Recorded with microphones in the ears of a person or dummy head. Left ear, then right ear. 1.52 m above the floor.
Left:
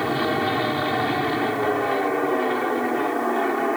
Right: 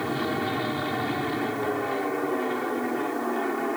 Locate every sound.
0.0 s an aircraft: 20° left (ahead or behind)